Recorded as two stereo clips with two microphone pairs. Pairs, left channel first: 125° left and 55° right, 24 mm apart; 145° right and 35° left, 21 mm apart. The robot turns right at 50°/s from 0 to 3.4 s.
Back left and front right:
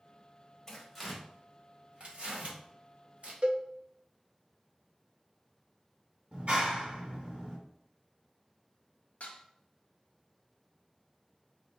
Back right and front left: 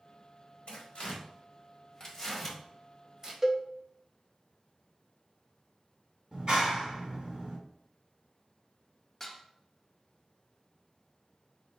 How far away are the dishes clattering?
About 1.0 m.